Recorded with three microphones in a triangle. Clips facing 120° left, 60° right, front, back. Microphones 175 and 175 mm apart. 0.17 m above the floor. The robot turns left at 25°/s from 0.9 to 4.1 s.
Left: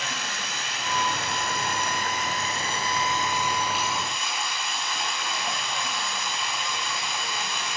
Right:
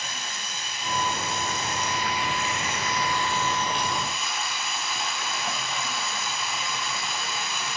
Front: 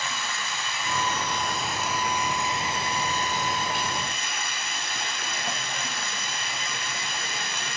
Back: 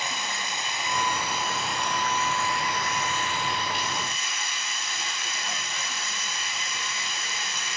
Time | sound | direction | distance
0.0 | running water | 110° left | 5 m